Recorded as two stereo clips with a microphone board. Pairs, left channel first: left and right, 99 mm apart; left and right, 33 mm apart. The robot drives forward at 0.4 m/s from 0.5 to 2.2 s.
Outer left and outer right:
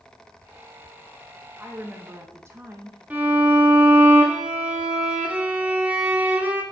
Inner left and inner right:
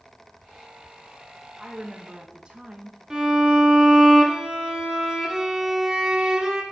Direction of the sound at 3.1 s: 15° right (ahead or behind).